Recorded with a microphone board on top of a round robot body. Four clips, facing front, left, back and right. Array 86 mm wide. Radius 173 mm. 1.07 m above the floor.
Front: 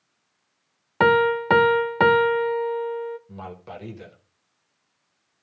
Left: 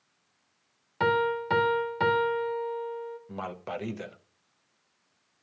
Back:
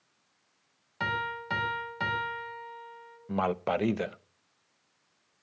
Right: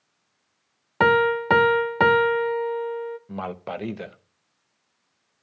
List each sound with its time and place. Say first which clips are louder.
1.0 s a piano: right 7 dB, front 15 dB; 35° right, 0.7 m
3.3 s a man speaking: right 4 dB, back 9 dB; 165° right, 0.9 m